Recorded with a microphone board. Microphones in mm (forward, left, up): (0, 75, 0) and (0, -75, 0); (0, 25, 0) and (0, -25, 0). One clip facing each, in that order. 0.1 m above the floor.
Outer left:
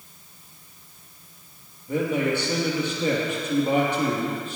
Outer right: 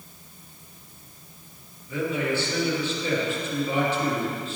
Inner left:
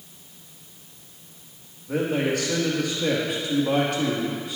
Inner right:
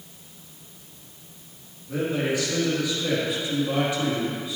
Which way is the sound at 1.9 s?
55° left (ahead or behind).